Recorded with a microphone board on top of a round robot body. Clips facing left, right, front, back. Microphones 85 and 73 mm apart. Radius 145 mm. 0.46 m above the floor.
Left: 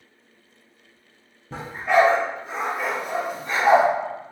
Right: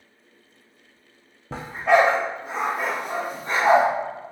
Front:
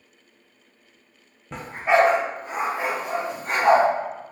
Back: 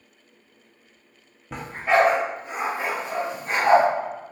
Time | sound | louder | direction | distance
1.5 | a dog barking | right 1 dB, front 1 dB | 95° right | 0.5 m